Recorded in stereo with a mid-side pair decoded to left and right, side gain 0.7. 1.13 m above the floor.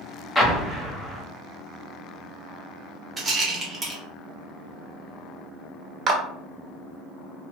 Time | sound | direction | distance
0.3 | an explosion | 5° left | 0.8 m
3.2 | a rattle | 15° right | 1.1 m
6.1 | a clap | 35° right | 0.7 m